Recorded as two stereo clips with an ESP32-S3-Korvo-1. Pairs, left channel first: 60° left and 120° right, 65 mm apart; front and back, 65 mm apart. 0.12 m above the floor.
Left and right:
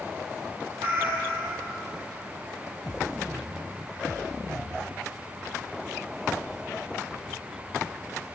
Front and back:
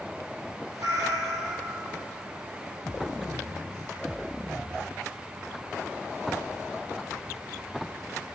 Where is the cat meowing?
175° right, 1.2 m.